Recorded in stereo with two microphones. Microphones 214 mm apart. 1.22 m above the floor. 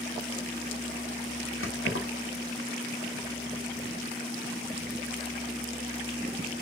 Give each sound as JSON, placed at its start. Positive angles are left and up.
{"t": 1.6, "sound": "keys jangling", "side_deg": 70, "distance_m": 1.7}